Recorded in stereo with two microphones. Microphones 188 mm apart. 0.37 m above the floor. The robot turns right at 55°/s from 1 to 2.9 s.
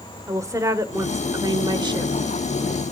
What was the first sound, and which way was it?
A woman speaking, 15° right (ahead or behind).